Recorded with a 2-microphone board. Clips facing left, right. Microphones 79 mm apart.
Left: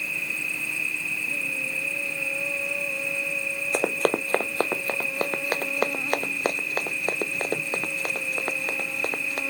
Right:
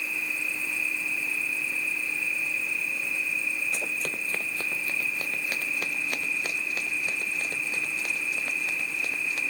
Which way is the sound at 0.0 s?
70° left (ahead or behind).